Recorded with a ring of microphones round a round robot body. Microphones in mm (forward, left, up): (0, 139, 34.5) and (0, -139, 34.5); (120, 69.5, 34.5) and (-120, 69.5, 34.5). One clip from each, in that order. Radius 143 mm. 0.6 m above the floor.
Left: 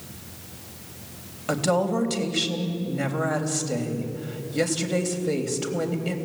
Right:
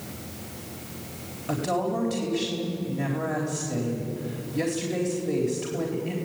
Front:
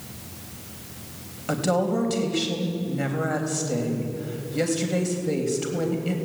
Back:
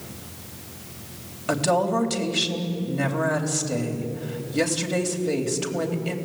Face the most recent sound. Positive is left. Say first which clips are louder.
# left 4 dB, back 2 dB
turn(degrees=120)